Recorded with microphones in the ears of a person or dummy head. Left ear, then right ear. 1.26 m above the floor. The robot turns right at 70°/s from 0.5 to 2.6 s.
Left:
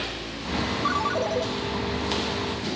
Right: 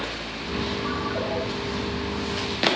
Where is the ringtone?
70° left, 1.6 m; by 1.4 s 110° left, 1.6 m.